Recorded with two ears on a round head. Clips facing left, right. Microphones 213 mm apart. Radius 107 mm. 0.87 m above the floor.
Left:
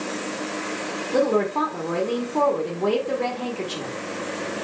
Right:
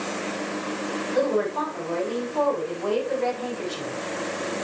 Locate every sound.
1.1 s a woman speaking: 65° left (ahead or behind), 2 m